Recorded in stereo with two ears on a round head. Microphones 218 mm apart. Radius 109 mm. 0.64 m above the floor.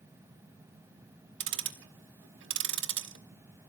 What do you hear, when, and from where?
1.4 s ticking: 50° right (ahead or behind), 0.9 m